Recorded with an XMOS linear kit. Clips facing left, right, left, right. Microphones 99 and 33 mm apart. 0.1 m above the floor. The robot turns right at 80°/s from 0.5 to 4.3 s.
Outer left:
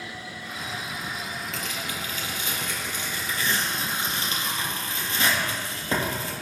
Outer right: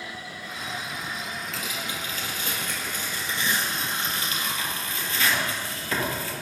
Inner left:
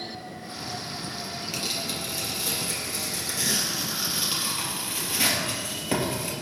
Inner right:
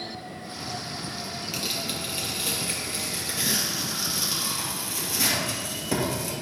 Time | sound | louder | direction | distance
1.5 | tearing paper | even, even | centre (ahead or behind) | 3 m